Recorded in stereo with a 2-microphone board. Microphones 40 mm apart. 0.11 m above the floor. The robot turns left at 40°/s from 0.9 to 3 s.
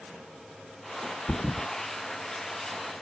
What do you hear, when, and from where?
1.3 s a thud: 40° left (ahead or behind); by 1.7 s 60° left (ahead or behind)